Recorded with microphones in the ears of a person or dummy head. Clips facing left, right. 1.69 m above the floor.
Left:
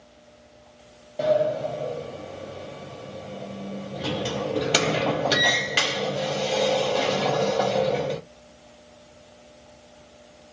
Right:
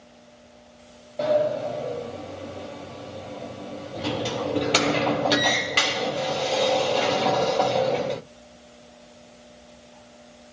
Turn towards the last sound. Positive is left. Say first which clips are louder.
# even
turn(degrees=5)  # may be behind; listen again after turning